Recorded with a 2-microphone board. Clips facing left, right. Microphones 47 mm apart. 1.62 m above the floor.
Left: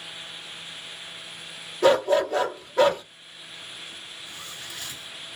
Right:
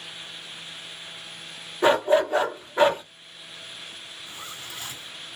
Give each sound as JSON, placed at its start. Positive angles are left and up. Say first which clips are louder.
{"t": 1.8, "sound": "a dog barking", "louder": "even", "side_deg": -20, "distance_m": 1.3}
{"t": 4.3, "sound": "a zipper", "louder": "right 2 dB", "side_deg": -25, "distance_m": 3.0}